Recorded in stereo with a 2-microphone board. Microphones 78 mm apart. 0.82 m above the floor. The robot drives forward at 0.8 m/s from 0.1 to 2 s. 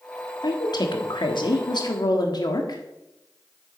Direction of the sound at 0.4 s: 60° left (ahead or behind).